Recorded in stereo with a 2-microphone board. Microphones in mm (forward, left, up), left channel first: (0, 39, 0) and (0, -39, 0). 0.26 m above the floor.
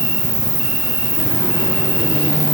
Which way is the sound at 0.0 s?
35° left (ahead or behind).